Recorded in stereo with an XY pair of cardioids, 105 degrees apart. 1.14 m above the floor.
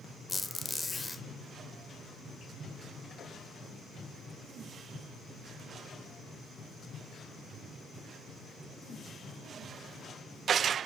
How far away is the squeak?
About 0.6 m.